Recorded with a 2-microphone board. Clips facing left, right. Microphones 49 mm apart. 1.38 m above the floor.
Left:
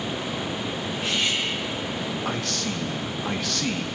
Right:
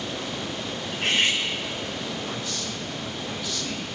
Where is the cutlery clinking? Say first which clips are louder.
Right 4 dB; 60° right (ahead or behind), 6 m.